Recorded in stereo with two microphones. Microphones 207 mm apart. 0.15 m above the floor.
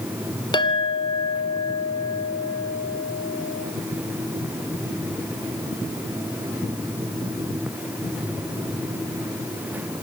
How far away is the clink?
About 1.2 m.